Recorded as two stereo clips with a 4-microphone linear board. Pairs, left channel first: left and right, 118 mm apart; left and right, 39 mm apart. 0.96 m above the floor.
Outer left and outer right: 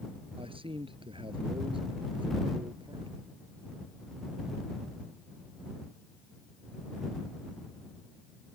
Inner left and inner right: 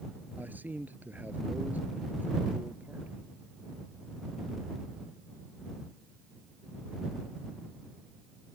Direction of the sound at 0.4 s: 50° right (ahead or behind).